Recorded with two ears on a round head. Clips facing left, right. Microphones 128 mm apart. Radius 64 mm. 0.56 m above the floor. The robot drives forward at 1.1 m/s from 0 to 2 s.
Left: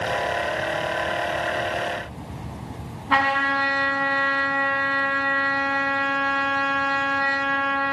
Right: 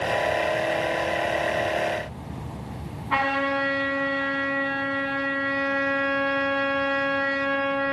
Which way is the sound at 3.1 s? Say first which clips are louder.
Left 2 dB; 55° left (ahead or behind).